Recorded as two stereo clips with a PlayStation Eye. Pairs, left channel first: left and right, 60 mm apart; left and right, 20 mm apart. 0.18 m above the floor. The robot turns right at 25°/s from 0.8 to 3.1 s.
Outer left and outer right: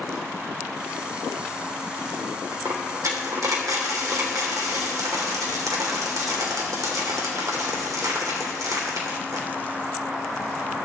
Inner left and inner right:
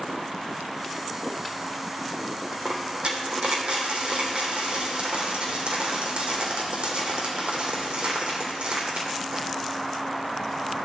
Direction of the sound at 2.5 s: 85° right.